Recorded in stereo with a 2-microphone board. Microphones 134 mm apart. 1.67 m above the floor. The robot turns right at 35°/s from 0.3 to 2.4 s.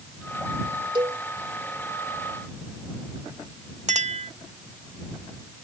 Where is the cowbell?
35° right (ahead or behind); by 1.2 s 40° right (ahead or behind).